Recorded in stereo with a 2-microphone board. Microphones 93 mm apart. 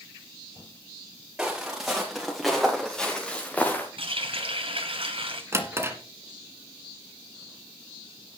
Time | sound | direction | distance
1.4 | footsteps | 5° right (ahead or behind) | 5 m
4.0 | a running tap | 75° right (ahead or behind) | 2 m
5.5 | a drawer | 30° right (ahead or behind) | 1.7 m